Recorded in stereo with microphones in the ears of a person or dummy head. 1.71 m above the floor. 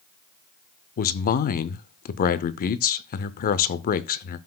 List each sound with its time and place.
1.0 s a man speaking: 50° left (ahead or behind), 0.6 m